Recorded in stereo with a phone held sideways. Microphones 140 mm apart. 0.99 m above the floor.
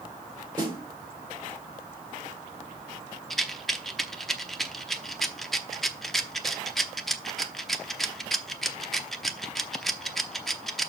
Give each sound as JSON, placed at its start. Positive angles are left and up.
{"t": 0.6, "sound": "a snare drum", "side_deg": -30, "distance_m": 3.5}
{"t": 3.3, "sound": "a rattle", "side_deg": 0, "distance_m": 0.8}